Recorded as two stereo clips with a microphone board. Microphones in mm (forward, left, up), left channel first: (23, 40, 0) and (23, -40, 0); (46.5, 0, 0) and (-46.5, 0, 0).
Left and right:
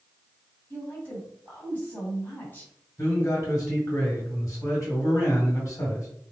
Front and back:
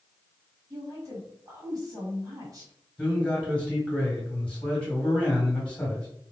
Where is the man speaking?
70° left, 2.0 m.